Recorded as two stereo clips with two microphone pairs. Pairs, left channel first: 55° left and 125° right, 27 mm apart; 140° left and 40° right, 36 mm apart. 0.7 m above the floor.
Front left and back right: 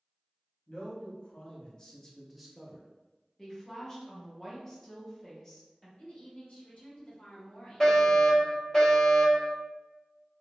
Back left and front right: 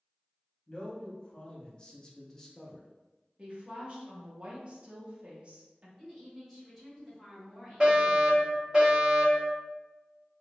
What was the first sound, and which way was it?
A man speaking, 80° left.